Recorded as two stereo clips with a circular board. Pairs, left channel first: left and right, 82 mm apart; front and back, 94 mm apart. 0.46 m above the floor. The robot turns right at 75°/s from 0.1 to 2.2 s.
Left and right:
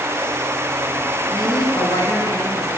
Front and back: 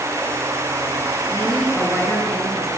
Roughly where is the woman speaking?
Ahead left.